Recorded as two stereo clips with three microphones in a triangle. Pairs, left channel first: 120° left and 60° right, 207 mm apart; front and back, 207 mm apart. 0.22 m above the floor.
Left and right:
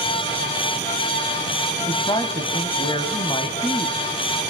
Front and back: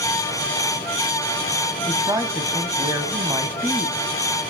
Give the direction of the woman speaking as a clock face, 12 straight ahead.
8 o'clock.